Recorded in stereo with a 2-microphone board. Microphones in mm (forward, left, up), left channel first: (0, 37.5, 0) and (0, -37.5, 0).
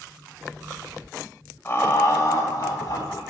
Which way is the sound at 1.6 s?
30° left (ahead or behind).